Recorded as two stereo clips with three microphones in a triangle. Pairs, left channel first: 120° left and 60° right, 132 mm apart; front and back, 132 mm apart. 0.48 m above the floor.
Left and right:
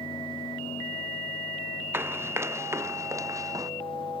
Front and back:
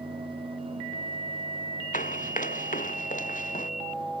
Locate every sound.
1.9 s running footsteps: 10° left; by 3.7 s 5° left